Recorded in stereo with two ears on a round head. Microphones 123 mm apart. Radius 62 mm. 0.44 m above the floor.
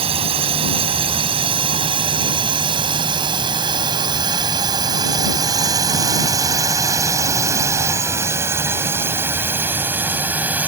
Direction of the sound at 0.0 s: 45° right (ahead or behind).